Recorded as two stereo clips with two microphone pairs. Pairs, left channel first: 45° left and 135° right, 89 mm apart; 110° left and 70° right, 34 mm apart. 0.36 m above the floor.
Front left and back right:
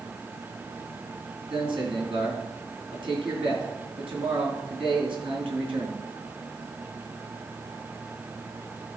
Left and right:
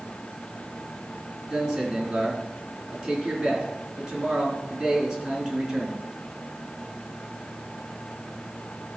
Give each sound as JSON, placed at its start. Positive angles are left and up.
{"t": 1.5, "sound": "a man speaking", "azimuth_deg": -140, "distance_m": 3.5}